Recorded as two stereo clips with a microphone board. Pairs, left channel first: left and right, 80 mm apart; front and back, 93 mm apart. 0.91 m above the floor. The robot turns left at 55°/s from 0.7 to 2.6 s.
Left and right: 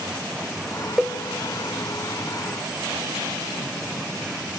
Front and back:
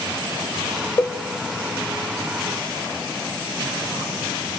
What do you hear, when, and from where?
1.0 s a cowbell: 10° right, 0.6 m; by 1.2 s 20° right, 0.6 m